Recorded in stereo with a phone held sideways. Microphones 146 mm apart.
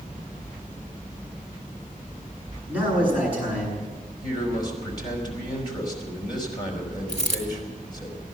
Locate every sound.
2.7 s a man speaking: 10° right (ahead or behind), 8 m
4.2 s a man speaking: 30° left (ahead or behind), 5 m
7.1 s a dropped coin: 50° left (ahead or behind), 3 m